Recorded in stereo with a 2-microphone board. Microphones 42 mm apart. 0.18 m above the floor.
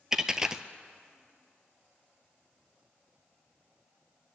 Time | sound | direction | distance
0.1 | a dropped coin | 15° right (ahead or behind) | 0.5 m